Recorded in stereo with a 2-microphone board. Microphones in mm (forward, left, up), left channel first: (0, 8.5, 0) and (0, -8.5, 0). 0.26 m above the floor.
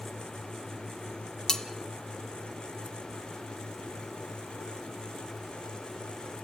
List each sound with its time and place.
1.5 s cutlery clinking: 35° left (ahead or behind), 1.0 m